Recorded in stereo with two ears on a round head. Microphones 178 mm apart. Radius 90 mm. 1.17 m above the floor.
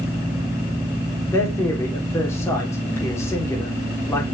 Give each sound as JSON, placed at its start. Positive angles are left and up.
{"t": 1.3, "sound": "a man speaking", "side_deg": 15, "distance_m": 3.0}